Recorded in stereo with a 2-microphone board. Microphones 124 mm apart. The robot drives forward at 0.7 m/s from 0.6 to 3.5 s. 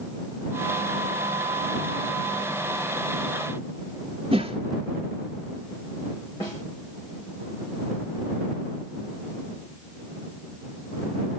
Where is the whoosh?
50° right (ahead or behind), 1.7 m.